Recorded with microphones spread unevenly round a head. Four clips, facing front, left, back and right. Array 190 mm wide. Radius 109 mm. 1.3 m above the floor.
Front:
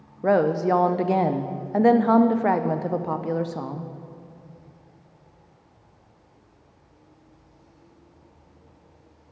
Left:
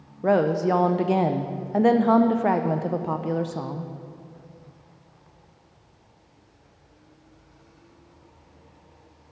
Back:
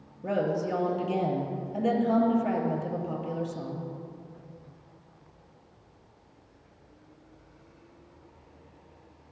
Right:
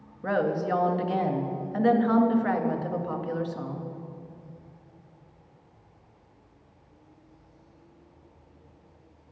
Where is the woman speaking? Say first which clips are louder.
Left 6 dB, front 8 dB; 35° left, 0.5 m.